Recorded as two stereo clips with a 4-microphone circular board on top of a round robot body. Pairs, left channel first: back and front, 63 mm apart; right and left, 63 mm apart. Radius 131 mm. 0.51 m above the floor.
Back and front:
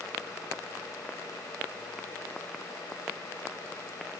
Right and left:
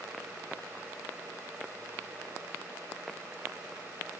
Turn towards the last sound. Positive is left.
No sound to turn to.